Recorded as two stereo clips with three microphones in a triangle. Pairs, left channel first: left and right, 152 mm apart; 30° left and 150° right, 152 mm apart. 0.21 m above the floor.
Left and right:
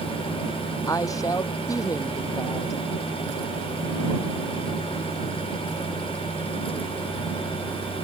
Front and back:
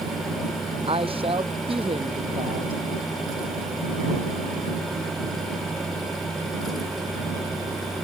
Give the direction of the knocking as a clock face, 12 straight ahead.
I don't hear knocking.